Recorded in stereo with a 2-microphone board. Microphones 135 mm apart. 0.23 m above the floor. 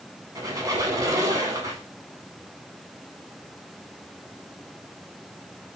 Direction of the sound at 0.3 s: 30° right (ahead or behind).